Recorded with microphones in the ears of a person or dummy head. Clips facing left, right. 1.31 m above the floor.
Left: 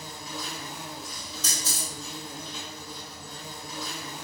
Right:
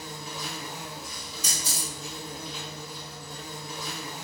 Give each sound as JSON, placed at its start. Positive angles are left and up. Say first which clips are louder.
{"t": 0.0, "sound": "an insect", "louder": "even", "side_deg": 35, "distance_m": 1.8}
{"t": 1.4, "sound": "a camera shutter", "louder": "left 1 dB", "side_deg": -5, "distance_m": 1.5}